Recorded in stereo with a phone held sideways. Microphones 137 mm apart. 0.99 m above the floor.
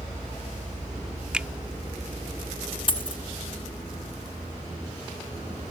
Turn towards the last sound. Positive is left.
turn(degrees=40)  # may be behind; listen again after turning